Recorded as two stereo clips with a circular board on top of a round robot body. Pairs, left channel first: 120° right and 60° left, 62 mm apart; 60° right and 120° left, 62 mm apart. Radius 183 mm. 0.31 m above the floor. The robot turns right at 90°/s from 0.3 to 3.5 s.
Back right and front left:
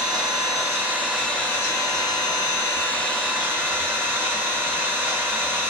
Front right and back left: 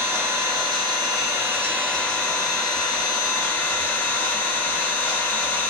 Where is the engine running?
65° left, 0.9 m; by 5.7 s 5° right, 0.9 m.